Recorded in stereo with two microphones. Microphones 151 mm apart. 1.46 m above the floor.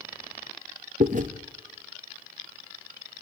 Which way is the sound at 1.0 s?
60° right (ahead or behind).